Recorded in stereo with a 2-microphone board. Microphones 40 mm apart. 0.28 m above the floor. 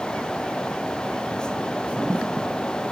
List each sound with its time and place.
Only background noise.